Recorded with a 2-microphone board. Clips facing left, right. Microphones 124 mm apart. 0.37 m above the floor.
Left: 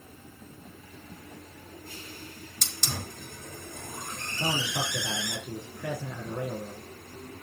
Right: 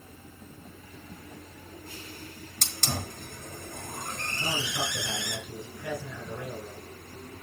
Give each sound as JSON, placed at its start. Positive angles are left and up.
{"t": 2.6, "sound": "a hiss", "side_deg": -55, "distance_m": 5.0}
{"t": 4.4, "sound": "a man speaking", "side_deg": 65, "distance_m": 4.5}